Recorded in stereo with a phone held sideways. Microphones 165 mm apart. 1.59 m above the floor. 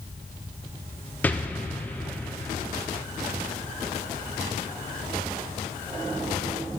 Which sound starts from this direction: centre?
An explosion, at 1.2 s.